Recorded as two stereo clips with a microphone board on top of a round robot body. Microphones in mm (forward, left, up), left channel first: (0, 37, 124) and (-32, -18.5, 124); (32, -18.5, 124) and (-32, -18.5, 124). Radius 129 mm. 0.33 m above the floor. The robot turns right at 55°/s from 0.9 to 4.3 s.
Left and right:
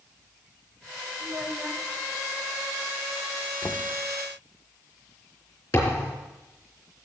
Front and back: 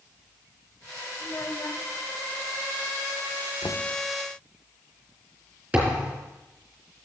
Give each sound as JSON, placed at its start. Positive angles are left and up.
{"t": 1.2, "sound": "a child speaking", "azimuth_deg": -70, "distance_m": 2.0}
{"t": 3.6, "sound": "knocking", "azimuth_deg": 25, "distance_m": 0.7}
{"t": 5.7, "sound": "a thud", "azimuth_deg": 105, "distance_m": 4.0}